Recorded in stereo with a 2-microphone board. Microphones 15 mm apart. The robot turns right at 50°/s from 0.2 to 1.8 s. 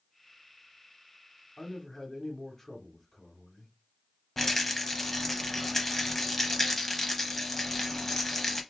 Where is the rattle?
15° left (ahead or behind), 0.6 m.